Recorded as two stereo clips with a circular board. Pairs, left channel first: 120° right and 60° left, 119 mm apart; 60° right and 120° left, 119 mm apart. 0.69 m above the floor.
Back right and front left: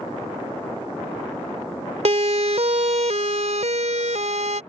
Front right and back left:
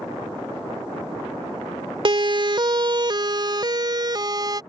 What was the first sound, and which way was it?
A siren, 75° left.